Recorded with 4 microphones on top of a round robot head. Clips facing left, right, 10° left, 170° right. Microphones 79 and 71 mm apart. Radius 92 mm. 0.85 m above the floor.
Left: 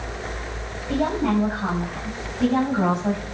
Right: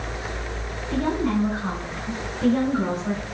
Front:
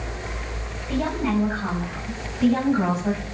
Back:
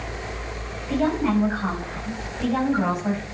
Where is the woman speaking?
110° left, 6.5 m.